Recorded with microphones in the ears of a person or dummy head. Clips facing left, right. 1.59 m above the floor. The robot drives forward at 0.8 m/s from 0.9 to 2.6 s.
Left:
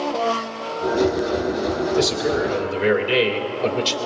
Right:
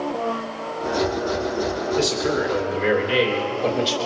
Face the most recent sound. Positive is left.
turn(degrees=35)  # may be behind; listen again after turning